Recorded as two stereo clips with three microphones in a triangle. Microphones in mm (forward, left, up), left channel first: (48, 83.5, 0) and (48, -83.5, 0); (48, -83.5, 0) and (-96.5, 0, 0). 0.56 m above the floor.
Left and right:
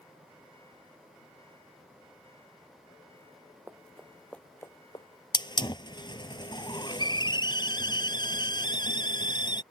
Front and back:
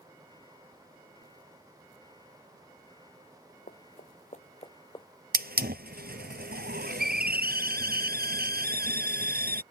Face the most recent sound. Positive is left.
turn(degrees=150)